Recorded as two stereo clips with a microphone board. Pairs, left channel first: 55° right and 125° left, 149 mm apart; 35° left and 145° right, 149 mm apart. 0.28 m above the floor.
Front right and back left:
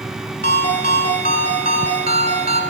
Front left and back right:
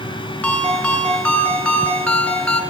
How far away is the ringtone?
About 1.4 m.